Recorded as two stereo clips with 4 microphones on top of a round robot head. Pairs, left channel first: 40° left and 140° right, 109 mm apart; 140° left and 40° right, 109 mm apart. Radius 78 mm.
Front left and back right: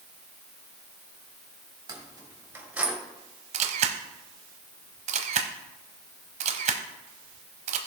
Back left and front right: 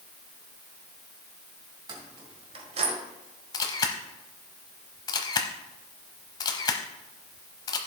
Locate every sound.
1.9 s keys jangling: 90° right, 2 m; by 2.9 s 60° right, 1.5 m
3.5 s a camera shutter: 165° right, 0.8 m